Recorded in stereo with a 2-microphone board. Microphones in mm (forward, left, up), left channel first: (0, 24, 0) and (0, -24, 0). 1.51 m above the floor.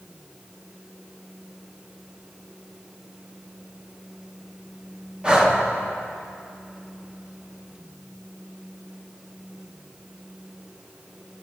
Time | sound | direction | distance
5.2 | breathing | 20° right (ahead or behind) | 0.8 m